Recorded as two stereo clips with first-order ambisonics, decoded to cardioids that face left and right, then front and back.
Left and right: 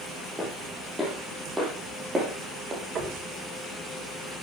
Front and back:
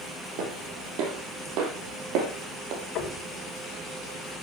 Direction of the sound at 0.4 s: 175° left.